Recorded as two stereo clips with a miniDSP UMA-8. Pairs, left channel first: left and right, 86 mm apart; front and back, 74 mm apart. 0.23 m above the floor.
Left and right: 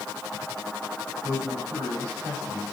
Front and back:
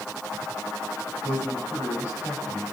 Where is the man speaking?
35° right, 9 m.